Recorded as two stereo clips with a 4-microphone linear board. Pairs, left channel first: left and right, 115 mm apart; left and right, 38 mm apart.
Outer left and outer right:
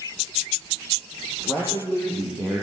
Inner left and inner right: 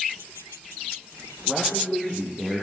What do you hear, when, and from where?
1.4 s a man speaking: 15° left (ahead or behind), 7 m; by 2.6 s 10° left (ahead or behind), 7 m